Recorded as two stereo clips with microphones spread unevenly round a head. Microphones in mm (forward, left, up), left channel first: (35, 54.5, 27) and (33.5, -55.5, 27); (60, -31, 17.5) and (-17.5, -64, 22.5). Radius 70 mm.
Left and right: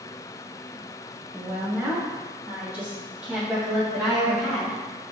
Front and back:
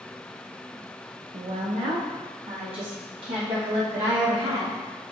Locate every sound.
1.3 s a woman speaking: 165° right, 0.8 m; by 4.8 s 170° right, 2.5 m